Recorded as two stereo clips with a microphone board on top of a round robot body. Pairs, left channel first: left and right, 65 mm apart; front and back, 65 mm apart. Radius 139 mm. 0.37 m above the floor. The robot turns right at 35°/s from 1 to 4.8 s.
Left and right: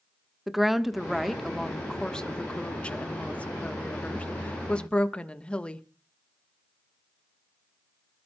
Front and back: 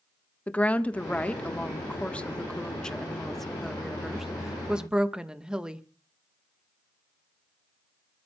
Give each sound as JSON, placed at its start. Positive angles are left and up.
{"t": 0.5, "sound": "a woman speaking", "azimuth_deg": -10, "distance_m": 1.4}